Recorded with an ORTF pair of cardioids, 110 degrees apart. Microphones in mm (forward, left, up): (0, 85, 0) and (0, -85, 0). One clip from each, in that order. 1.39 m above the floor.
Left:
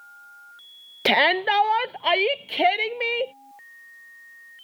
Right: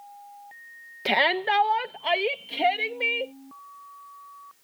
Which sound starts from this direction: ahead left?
A shout, at 1.1 s.